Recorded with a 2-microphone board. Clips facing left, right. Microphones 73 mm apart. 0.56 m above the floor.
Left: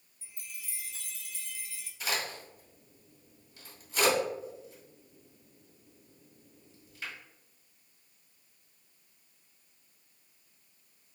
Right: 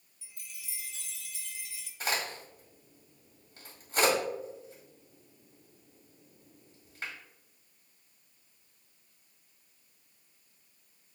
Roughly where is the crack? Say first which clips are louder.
Right 1 dB; right.